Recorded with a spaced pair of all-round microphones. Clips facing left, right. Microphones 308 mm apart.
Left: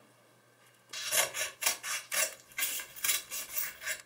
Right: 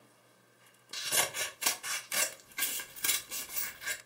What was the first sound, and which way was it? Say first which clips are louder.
Scissors: even; 50° right (ahead or behind).